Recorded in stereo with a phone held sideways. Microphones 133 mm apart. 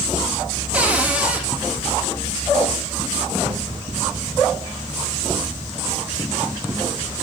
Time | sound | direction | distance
0.7 | a cupboard door | 10° right (ahead or behind) | 1.2 m